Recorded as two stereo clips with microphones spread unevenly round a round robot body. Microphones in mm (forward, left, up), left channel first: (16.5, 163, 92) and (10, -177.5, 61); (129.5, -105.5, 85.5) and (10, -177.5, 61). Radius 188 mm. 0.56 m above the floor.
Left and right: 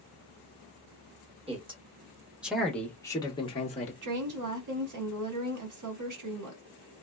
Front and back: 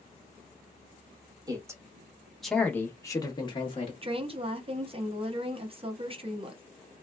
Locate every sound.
1.5 s a man speaking: 140° right, 1.2 m; by 3.9 s 25° left, 1.2 m
4.0 s a woman speaking: 110° right, 1.2 m